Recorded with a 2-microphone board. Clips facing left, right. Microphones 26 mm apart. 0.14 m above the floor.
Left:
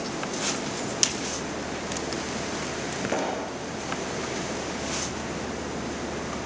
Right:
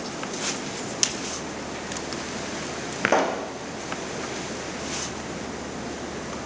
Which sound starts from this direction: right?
A pop, at 3.0 s.